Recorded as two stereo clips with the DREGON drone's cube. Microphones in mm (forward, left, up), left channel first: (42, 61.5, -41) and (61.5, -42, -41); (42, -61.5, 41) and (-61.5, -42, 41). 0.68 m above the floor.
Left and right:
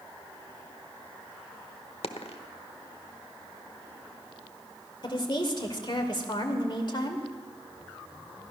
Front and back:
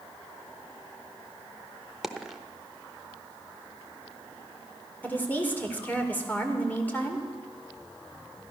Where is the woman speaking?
60° left, 2 m.